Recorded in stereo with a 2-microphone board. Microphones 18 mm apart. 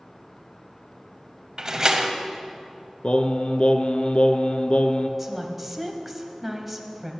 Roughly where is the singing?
Left.